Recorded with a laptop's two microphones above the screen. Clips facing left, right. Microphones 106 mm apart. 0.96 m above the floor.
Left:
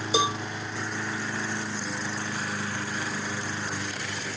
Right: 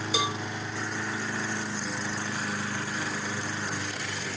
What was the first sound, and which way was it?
A cowbell, 25° left (ahead or behind).